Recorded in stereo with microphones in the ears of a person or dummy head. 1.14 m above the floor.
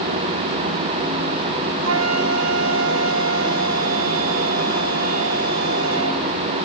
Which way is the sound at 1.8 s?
80° right.